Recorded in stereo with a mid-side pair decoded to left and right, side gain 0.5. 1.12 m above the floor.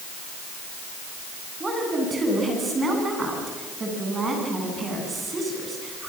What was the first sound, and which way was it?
A woman speaking, 30° right.